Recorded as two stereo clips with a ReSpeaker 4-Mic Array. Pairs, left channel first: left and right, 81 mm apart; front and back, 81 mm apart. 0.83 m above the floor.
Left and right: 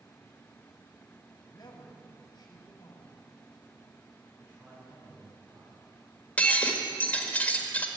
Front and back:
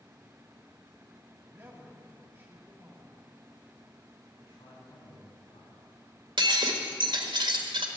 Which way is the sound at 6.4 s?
160° left.